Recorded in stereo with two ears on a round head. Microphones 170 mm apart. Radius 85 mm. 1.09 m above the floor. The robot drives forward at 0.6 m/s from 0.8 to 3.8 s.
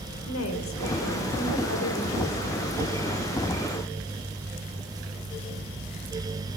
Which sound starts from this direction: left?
A woman speaking, at 0.3 s.